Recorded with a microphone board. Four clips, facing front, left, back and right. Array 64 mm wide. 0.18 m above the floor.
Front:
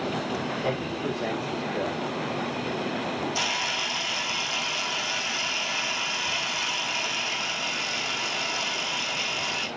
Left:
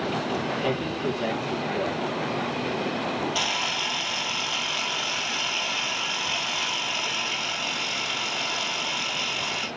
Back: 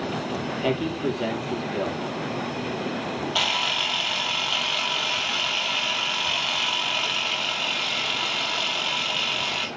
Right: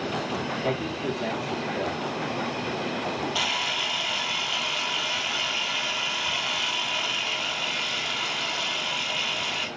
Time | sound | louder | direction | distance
0.6 | a man speaking | left 1 dB, back 4 dB | 170° left | 5 m
3.4 | a camera shutter | even, back 3 dB | 175° right | 3 m